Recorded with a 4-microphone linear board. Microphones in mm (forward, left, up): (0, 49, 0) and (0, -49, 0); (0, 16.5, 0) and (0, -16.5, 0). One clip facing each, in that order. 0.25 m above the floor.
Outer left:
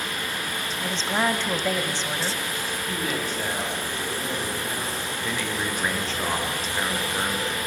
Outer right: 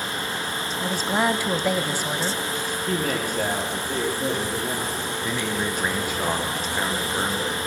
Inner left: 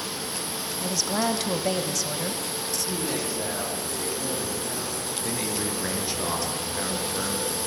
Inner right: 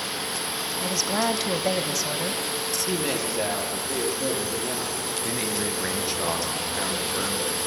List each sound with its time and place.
0.8 s a woman speaking: 10° right (ahead or behind), 1.2 m
2.9 s a woman speaking: 50° right (ahead or behind), 7 m
5.2 s a man speaking: 10° right (ahead or behind), 4 m